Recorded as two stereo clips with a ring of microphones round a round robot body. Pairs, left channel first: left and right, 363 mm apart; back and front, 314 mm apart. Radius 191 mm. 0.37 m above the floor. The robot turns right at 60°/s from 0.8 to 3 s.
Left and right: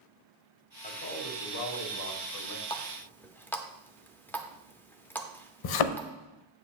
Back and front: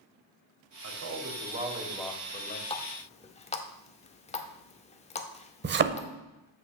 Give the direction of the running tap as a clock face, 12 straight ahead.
7 o'clock.